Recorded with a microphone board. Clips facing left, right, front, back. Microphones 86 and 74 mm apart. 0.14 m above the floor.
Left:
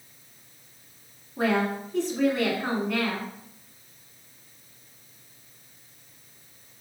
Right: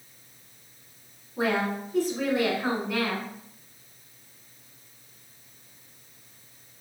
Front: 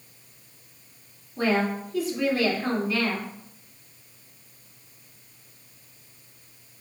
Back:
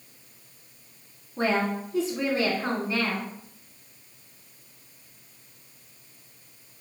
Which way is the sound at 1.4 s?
160° right.